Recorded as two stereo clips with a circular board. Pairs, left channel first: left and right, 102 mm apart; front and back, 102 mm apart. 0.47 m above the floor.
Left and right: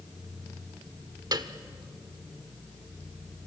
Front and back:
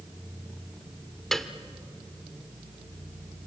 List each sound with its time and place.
1.3 s a piano: 85° right, 1.0 m